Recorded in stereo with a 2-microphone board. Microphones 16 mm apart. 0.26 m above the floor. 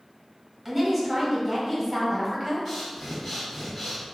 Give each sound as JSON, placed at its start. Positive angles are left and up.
{"t": 0.7, "sound": "a woman speaking", "side_deg": -15, "distance_m": 1.1}
{"t": 2.6, "sound": "breathing", "side_deg": 15, "distance_m": 1.4}